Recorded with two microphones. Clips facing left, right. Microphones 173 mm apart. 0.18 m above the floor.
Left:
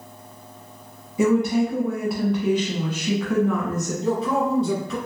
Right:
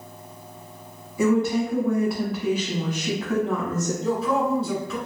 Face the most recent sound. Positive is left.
turn(degrees=20)  # may be behind; listen again after turning